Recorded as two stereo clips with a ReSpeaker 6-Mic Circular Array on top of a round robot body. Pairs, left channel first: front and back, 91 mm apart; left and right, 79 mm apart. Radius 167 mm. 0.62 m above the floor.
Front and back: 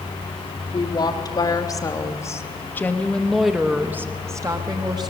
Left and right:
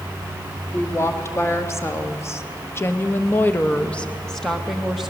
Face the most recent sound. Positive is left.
turn(degrees=-175)